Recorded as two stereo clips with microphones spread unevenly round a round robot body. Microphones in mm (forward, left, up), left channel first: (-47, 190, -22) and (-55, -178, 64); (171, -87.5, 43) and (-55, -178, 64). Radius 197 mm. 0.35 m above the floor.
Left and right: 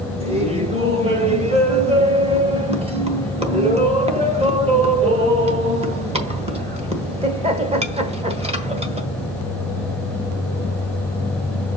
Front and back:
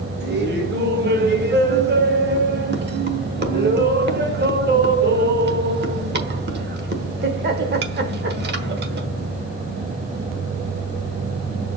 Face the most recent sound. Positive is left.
turn(degrees=-175)